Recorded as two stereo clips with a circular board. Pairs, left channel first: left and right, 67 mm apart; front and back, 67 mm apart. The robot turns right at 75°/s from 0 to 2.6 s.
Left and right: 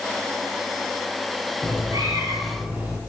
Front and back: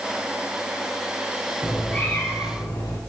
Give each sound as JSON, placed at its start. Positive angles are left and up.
{"t": 1.6, "sound": "a cat meowing", "azimuth_deg": -100, "distance_m": 5.5}